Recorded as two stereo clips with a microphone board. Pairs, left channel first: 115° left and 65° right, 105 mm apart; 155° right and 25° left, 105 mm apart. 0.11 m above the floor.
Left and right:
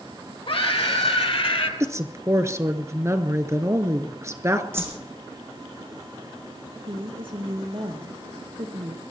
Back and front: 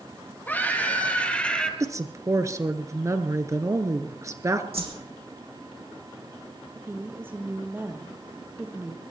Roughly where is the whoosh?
Ahead.